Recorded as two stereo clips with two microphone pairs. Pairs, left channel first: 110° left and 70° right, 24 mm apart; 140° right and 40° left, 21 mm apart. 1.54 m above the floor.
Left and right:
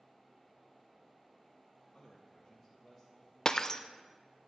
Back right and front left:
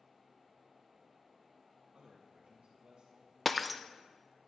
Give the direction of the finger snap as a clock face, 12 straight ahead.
I don't hear a finger snap.